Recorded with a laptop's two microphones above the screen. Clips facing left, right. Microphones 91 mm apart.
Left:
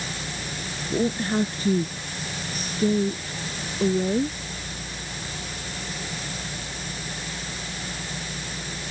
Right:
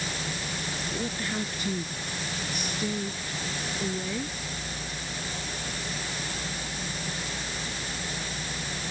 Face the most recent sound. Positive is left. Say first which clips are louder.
# left 11 dB
turn(degrees=35)  # may be behind; listen again after turning